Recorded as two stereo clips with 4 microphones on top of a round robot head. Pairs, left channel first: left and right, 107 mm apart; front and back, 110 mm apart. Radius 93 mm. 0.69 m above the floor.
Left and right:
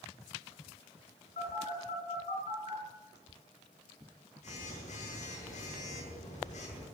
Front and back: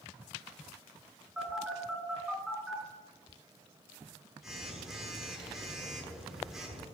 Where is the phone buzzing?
95° left, 7 m.